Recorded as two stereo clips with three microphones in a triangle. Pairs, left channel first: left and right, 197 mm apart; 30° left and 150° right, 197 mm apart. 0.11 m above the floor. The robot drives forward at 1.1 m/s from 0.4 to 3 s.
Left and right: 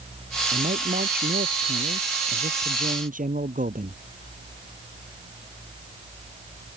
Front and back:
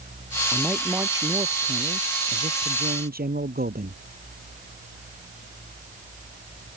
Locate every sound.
0.5 s a man speaking: 65° right; by 4.0 s 125° right